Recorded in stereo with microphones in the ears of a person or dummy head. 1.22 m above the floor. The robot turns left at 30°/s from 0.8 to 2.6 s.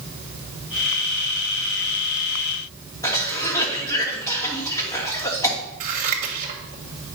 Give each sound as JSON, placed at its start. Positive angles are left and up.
{"t": 3.0, "sound": "a cough", "side_deg": 15, "distance_m": 2.0}
{"t": 5.8, "sound": "scissors", "side_deg": -45, "distance_m": 1.3}